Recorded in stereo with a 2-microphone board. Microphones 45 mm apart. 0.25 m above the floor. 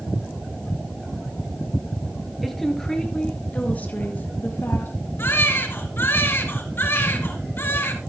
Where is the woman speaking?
Centre (ahead or behind), 3.5 m; by 5.0 s 60° left (ahead or behind), 4 m.